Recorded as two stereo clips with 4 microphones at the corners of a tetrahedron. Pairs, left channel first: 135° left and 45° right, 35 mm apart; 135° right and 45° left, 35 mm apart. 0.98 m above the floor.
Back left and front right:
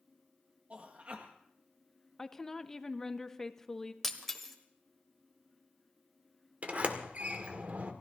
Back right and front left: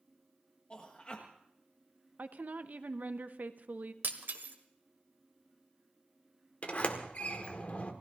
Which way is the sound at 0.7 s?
80° right.